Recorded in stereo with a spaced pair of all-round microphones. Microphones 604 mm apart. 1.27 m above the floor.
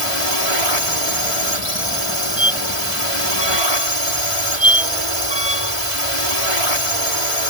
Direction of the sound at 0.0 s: 55° left (ahead or behind).